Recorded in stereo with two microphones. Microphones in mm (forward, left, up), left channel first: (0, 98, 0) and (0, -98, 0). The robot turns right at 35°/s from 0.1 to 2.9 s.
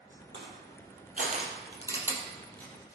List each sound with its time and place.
0.3 s crushing: 65° right (ahead or behind), 3.5 m; by 3.0 s 20° left (ahead or behind), 3.5 m